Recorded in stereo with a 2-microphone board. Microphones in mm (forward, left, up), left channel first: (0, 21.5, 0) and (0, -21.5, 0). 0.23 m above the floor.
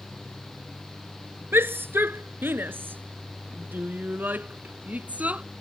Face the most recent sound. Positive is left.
turn(degrees=-40)  # may be behind; listen again after turning